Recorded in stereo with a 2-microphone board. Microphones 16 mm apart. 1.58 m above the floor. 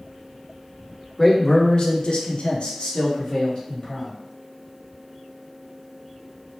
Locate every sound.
1.2 s a man speaking: 15° left (ahead or behind), 0.9 m; by 4.1 s 50° left (ahead or behind), 1.5 m